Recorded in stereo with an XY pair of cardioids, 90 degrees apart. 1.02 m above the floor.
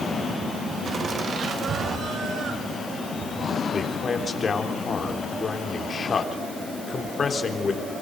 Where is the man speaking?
45° left, 3.5 m.